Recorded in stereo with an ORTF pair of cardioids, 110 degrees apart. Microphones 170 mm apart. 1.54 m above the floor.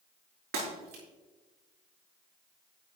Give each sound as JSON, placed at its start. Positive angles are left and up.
{"t": 0.5, "sound": "breaking glass", "azimuth_deg": -65, "distance_m": 5.5}